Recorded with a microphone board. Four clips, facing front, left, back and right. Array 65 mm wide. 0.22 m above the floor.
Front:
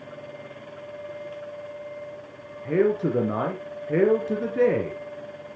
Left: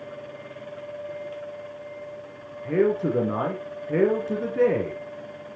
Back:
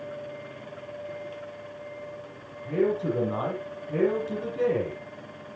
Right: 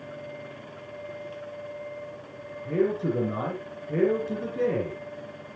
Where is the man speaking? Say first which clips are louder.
Left 3 dB, front 3 dB; 35° left, 3 m.